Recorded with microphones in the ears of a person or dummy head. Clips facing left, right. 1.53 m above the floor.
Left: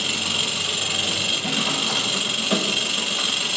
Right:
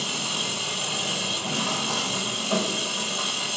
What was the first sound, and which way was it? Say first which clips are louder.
An engine running: left 2 dB; 25° left (ahead or behind).